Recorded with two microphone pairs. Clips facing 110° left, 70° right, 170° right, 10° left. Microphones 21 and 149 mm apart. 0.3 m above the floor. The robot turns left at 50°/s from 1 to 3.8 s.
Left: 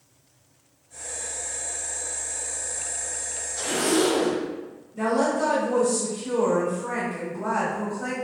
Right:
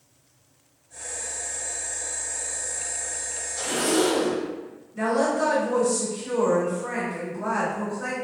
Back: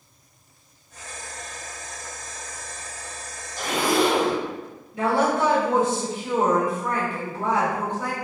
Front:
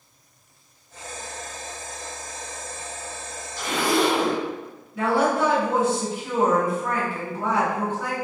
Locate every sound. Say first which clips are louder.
3.6 s a zipper: even, back 1 dB; 155° right, 0.8 m; by 4.4 s 170° right, 0.8 m
4.9 s a woman speaking: even, even; 110° right, 1.6 m